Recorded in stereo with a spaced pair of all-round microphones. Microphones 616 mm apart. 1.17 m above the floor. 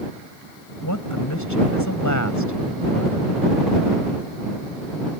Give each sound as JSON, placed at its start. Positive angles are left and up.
{"t": 0.8, "sound": "a woman speaking", "side_deg": 30}